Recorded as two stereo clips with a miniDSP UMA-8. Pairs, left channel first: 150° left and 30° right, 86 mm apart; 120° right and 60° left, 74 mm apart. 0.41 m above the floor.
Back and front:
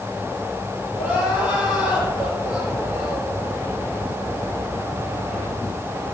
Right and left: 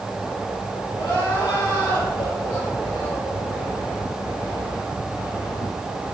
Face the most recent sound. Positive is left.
turn(degrees=-105)